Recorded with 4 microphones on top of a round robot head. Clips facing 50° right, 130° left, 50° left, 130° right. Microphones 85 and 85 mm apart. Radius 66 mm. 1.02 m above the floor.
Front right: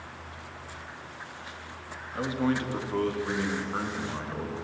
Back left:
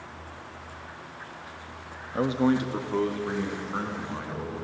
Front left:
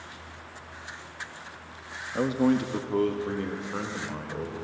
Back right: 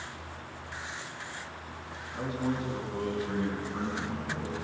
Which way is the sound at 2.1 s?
75° left.